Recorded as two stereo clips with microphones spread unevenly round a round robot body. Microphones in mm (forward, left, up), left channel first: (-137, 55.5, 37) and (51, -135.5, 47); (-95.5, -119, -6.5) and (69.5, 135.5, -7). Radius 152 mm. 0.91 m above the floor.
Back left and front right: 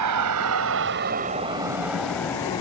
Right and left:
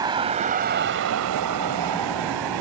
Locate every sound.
0.0 s a vehicle: 20° right; by 2.6 s 60° left